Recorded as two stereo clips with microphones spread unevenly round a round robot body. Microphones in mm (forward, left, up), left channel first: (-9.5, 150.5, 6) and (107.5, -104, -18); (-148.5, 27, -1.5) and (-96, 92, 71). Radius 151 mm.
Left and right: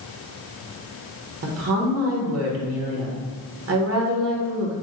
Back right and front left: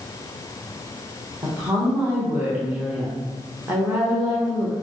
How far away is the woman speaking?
About 1.1 m.